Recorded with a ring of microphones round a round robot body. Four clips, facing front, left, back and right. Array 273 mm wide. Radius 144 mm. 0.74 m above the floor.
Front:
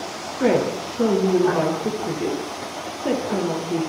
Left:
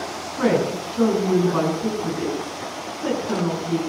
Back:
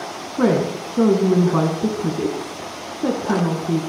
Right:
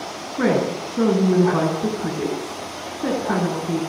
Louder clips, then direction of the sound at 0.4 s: Even, back 1 dB; 160° right.